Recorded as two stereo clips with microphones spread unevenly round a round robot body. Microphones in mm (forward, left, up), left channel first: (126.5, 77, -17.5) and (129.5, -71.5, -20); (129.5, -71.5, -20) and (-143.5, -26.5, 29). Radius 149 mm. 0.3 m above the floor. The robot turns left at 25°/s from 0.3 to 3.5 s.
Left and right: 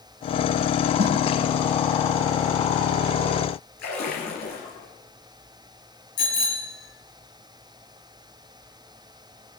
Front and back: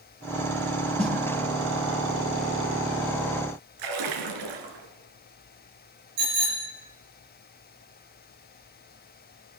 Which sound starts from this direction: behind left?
A splash, at 3.8 s.